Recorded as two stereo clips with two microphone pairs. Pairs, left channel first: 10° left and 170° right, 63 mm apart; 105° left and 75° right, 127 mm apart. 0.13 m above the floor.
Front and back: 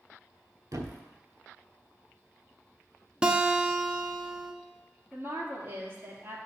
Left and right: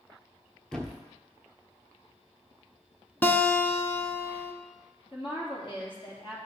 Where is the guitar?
145° left, 0.7 m.